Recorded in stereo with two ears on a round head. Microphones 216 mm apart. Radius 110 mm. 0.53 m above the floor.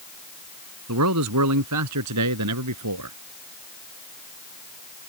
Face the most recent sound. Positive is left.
turn(degrees=-85)